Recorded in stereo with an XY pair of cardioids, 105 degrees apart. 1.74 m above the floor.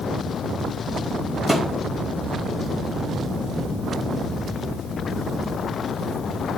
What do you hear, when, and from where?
1.5 s a thud: 5° left, 4.5 m